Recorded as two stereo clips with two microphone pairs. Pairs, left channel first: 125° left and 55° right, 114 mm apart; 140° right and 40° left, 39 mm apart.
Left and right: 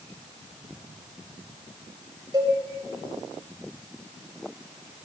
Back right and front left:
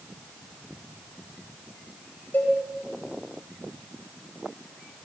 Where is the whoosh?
I don't hear a whoosh.